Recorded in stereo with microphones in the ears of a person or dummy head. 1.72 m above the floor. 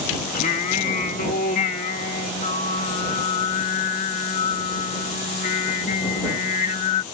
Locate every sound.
0.3 s singing: 50° left (ahead or behind)